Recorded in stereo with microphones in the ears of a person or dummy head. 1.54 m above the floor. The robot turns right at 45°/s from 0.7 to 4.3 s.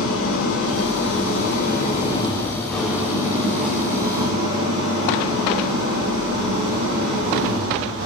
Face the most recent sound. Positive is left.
turn(degrees=-115)